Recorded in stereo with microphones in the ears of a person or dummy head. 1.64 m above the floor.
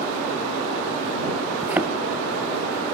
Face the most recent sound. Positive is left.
turn(degrees=-15)  # may be behind; listen again after turning